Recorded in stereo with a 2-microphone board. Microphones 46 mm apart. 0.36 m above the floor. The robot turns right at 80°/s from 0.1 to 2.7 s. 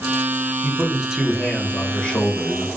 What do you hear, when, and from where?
0.6 s a man speaking: 60° right, 1.0 m; by 2.7 s 105° left, 1.0 m